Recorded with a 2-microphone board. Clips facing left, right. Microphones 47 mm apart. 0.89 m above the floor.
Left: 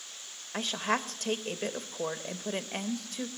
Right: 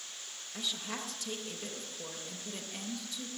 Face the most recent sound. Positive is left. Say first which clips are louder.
# left 9 dB
turn(degrees=55)  # may be behind; listen again after turning